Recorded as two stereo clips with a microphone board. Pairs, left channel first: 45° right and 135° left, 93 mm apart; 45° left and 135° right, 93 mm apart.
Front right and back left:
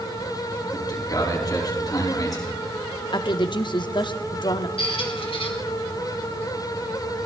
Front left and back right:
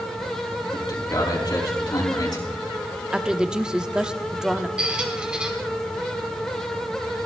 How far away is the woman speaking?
About 0.9 m.